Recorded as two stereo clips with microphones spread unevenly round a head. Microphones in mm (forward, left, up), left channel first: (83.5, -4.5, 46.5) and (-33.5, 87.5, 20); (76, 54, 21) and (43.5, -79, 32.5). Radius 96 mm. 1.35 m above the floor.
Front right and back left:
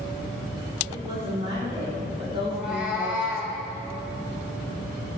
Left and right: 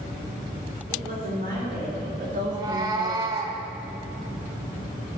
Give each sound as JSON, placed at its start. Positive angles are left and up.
{"t": 0.9, "sound": "a woman speaking", "azimuth_deg": -150, "distance_m": 4.5}
{"t": 2.5, "sound": "a cat meowing", "azimuth_deg": -120, "distance_m": 1.1}